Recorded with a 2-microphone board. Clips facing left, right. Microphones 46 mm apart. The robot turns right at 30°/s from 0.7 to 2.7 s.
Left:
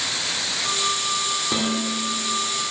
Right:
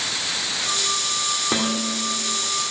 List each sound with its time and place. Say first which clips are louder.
1.5 s dishes clattering: right 1 dB; 25° right (ahead or behind), 2 m; by 2.3 s 5° right (ahead or behind), 2 m